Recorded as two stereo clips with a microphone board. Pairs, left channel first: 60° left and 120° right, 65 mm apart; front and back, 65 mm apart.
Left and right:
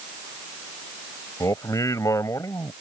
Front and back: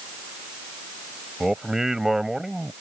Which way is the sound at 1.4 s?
95° left.